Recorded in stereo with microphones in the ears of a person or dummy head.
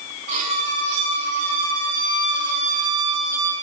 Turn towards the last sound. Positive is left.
turn(degrees=-45)  # may be behind; listen again after turning